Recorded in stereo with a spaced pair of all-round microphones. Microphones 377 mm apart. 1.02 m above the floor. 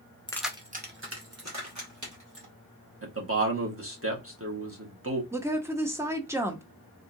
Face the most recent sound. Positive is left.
turn(degrees=-5)  # may be behind; listen again after turning